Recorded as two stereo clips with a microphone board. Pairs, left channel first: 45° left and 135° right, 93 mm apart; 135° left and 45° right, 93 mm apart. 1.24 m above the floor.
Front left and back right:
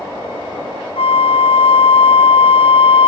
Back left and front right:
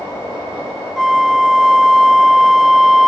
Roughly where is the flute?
Ahead left.